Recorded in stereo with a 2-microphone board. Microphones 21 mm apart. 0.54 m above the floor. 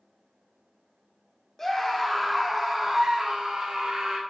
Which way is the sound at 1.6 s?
15° left (ahead or behind).